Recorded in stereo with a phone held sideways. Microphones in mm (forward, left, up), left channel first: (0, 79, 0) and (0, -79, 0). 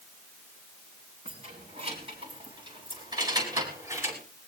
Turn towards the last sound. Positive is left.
turn(degrees=-15)  # may be behind; listen again after turning